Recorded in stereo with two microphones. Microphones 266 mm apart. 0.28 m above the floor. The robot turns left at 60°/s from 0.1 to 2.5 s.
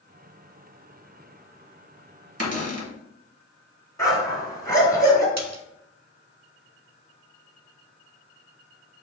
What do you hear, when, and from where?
2.4 s a cupboard door: 65° right (ahead or behind), 0.8 m
4.0 s a dog barking: 10° left (ahead or behind), 1.2 m
5.4 s a splash: 75° right (ahead or behind), 0.5 m